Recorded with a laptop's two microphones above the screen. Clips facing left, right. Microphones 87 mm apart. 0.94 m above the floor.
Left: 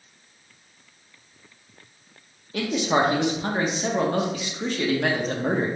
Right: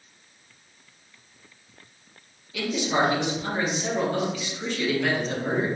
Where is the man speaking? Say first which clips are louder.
Left 2 dB; 40° left (ahead or behind), 0.7 m.